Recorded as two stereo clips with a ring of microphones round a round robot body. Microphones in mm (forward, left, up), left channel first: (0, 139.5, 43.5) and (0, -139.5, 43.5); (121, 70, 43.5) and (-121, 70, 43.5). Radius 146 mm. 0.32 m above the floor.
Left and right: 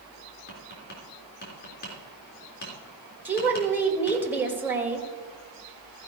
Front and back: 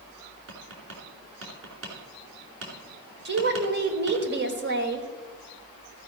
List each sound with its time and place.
0.5 s tapping: 145° left, 3.5 m
3.2 s a woman speaking: 170° right, 1.6 m